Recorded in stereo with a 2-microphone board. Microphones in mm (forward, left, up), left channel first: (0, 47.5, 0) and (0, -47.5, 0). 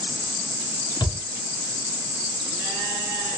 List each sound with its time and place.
1.0 s a thud: 45° left (ahead or behind), 1.1 m